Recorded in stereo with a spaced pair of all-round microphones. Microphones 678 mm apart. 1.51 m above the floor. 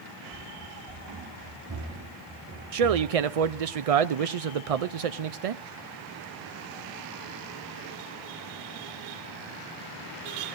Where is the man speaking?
65° right (ahead or behind), 0.6 m.